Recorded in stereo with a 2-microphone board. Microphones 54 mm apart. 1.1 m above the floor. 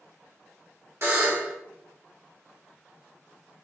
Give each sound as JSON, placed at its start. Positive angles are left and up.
{"t": 1.0, "sound": "a buzzer", "side_deg": -55, "distance_m": 1.5}